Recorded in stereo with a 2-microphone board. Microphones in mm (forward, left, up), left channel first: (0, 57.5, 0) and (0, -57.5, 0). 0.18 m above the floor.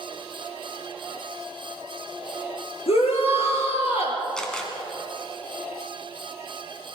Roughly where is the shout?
Left.